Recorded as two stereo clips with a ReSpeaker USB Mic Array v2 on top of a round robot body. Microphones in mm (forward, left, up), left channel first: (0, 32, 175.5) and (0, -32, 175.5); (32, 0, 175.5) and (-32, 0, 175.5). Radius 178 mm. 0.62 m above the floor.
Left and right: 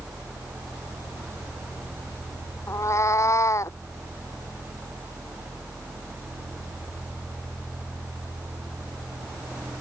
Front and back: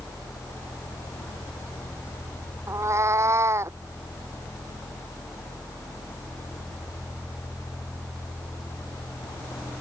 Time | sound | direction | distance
2.7 | a cat meowing | 135° left | ?